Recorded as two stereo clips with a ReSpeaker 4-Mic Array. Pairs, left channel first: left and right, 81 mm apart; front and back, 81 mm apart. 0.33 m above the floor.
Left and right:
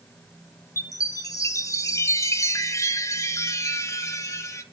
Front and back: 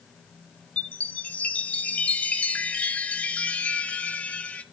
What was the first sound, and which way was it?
A chime, 65° left.